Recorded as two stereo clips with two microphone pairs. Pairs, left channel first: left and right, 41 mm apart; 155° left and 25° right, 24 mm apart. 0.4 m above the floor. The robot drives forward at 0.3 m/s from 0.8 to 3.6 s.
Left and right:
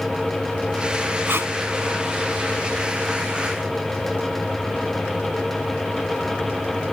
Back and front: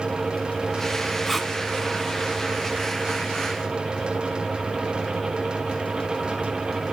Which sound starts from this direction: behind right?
Tape being pulled, at 1.3 s.